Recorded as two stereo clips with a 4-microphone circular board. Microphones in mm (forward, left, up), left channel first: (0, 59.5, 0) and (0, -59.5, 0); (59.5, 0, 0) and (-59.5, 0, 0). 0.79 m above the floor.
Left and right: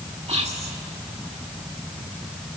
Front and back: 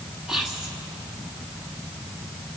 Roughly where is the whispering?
Right.